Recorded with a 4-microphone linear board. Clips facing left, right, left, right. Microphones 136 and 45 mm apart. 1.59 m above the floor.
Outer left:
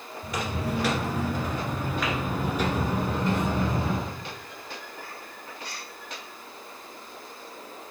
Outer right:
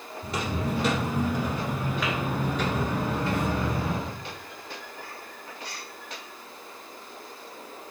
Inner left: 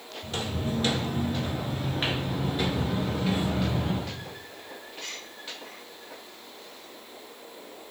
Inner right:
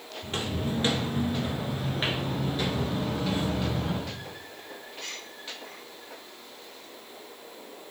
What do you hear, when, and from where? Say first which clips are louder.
0.2 s footsteps: outer right 1 dB, even; 30° right (ahead or behind), 1.8 m; by 4.1 s 30° left (ahead or behind), 2 m